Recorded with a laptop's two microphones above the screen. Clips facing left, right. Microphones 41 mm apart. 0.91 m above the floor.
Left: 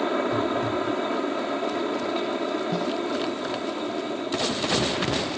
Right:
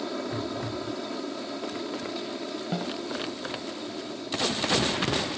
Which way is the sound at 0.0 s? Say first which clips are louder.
Left 8 dB; 45° left (ahead or behind).